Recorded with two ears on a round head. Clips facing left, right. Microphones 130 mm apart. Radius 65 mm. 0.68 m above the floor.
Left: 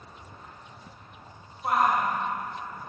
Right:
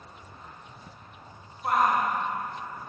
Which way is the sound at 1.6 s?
5° left (ahead or behind).